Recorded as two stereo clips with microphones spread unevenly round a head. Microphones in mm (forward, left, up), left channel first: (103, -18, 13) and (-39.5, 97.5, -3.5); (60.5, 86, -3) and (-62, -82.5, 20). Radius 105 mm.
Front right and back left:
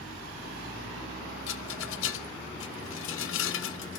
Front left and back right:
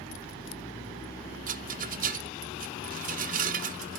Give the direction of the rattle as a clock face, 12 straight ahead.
2 o'clock.